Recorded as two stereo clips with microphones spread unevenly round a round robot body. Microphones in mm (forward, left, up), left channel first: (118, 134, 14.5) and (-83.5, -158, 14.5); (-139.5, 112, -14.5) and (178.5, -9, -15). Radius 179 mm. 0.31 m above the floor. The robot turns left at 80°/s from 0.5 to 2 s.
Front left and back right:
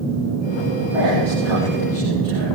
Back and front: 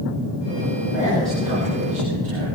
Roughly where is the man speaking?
Left.